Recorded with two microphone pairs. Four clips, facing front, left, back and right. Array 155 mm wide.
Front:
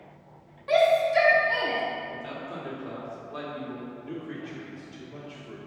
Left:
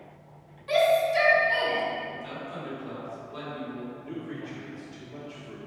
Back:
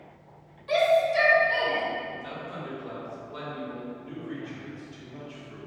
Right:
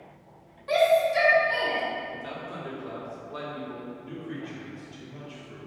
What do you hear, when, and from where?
0.7 s a shout: 25° right, 1.8 m; by 1.8 s 5° right, 1.7 m
2.1 s a man speaking: 45° right, 2 m
4.0 s a man speaking: 25° left, 1.8 m